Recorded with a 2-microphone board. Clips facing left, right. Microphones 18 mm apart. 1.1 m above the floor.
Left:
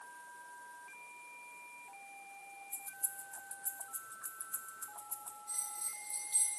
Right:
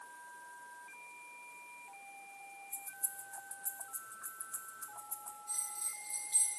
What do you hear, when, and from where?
2.7 s keys jangling: 75° left (ahead or behind), 0.7 m
5.5 s a bell: 15° right (ahead or behind), 5 m